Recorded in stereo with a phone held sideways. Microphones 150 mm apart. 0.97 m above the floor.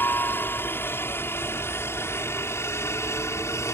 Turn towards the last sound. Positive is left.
turn(degrees=20)  # may be behind; listen again after turning